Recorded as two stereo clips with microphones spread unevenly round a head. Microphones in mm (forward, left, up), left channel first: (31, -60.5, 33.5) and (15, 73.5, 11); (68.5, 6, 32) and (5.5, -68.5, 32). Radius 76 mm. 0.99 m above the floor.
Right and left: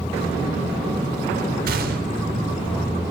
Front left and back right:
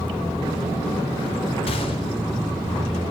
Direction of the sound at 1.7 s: 95° left.